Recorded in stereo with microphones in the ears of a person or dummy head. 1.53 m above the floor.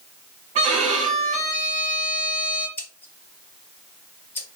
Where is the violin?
40° right (ahead or behind), 1.1 m.